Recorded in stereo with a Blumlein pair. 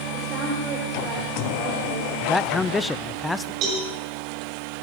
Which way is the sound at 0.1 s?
25° right.